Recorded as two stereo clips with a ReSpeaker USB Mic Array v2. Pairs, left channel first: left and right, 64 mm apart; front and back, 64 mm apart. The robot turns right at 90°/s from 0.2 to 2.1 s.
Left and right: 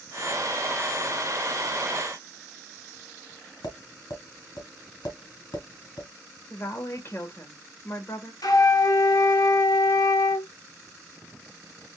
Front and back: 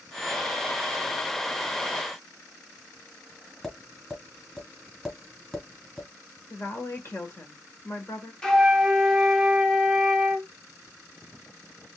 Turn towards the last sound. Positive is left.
turn(degrees=75)